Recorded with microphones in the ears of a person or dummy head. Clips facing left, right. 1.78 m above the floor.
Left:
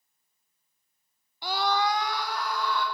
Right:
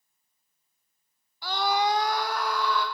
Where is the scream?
25° left (ahead or behind), 0.6 m; by 2.9 s 60° right (ahead or behind), 1.5 m.